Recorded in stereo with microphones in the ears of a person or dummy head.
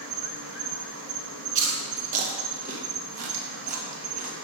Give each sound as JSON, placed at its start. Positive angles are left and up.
{"t": 0.0, "sound": "an insect", "side_deg": -85, "distance_m": 1.4}
{"t": 1.6, "sound": "chewing", "side_deg": -55, "distance_m": 1.4}